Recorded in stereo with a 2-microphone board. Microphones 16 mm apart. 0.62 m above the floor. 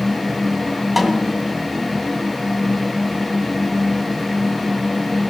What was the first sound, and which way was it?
A snare drum, 10° right (ahead or behind).